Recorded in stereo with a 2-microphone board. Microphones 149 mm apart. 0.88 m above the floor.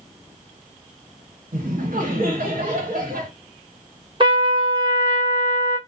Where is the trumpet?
35° right (ahead or behind), 0.8 m.